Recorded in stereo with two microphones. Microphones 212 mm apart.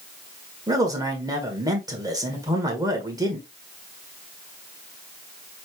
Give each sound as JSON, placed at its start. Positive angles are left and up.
{"t": 0.7, "sound": "a man speaking", "side_deg": -15, "distance_m": 1.4}